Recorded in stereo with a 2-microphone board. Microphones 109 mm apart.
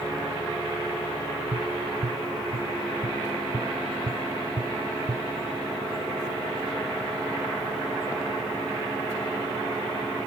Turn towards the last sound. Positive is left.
turn(degrees=-70)  # may be behind; listen again after turning